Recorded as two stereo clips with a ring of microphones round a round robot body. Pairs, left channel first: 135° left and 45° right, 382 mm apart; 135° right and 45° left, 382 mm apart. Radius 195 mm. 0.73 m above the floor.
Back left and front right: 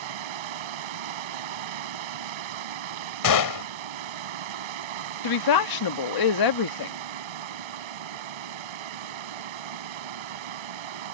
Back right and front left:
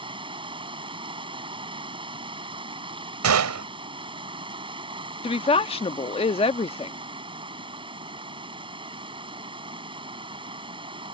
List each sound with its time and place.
0.0 s running water: 35° right
3.2 s a gunshot: 95° left
5.2 s a woman speaking: 150° left